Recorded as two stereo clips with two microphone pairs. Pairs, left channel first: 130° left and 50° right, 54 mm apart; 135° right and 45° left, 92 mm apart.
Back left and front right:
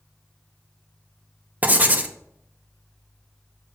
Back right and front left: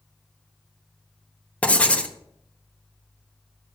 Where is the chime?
I don't hear a chime.